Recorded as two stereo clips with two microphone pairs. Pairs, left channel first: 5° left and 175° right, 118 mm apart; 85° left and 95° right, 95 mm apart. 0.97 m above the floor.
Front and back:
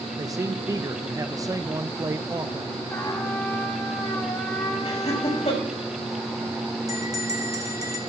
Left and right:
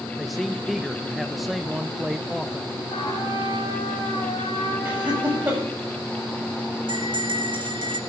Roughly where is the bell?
Behind right.